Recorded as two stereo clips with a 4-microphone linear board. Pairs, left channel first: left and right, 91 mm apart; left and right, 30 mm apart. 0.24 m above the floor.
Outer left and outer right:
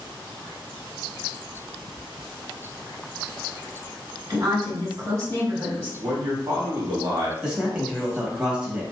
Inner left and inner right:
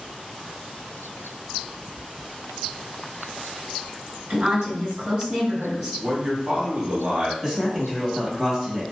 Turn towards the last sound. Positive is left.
turn(degrees=-10)  # may be behind; listen again after turning